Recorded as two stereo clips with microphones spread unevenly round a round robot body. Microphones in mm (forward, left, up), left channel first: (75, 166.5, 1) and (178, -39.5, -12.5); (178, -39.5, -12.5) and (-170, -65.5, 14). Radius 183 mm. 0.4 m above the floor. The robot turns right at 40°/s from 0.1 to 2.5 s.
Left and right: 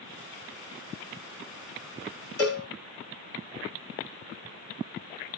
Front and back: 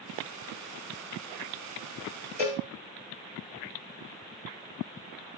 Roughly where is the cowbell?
Left.